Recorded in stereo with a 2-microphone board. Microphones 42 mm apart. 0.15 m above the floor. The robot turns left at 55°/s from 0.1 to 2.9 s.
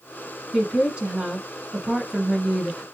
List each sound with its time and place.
0.5 s a woman speaking: 20° right (ahead or behind), 1.3 m; by 2.8 s 5° right (ahead or behind), 1.3 m